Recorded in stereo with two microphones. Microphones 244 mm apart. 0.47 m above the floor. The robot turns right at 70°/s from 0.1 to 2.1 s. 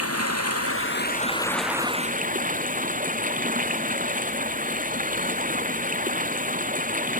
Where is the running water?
75° left; by 7.2 s 145° right.